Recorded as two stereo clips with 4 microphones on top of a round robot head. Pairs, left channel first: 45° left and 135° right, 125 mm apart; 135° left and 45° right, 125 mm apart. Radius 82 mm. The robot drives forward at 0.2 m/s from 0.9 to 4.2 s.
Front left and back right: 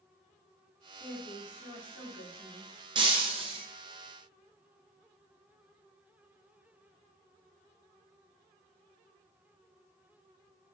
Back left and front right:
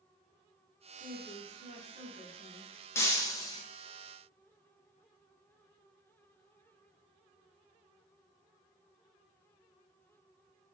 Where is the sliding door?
I don't hear a sliding door.